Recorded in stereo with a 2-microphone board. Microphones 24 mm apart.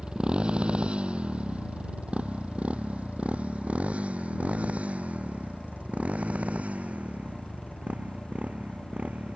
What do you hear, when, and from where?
0.0 s a motorcycle: 45° right (ahead or behind); by 9.4 s 90° right